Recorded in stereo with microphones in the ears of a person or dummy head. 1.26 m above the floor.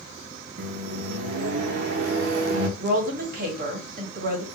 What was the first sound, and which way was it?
A microwave, 60° right (ahead or behind).